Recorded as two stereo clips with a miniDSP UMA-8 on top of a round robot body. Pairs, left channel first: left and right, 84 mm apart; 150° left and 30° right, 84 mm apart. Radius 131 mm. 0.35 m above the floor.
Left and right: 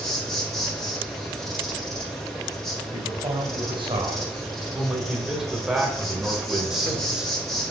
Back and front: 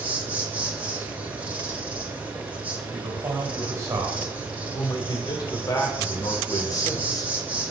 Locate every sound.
0.0 s an insect: 15° left, 2.5 m
2.9 s a man speaking: 75° right, 2.5 m
4.7 s a man speaking: 175° right, 2.5 m